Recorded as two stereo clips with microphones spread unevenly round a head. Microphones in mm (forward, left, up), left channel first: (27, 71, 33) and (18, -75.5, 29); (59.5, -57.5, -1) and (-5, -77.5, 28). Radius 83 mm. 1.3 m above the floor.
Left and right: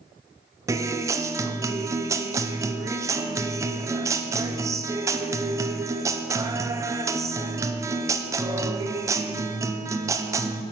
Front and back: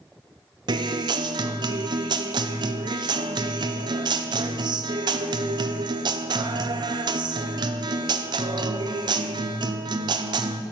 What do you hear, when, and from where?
0.7 s a guitar: 155° right, 0.6 m